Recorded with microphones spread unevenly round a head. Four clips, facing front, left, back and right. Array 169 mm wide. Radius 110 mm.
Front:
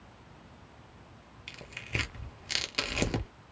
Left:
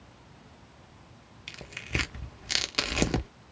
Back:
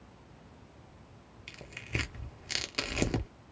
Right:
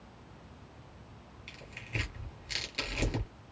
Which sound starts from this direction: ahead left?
Tearing paper, at 1.5 s.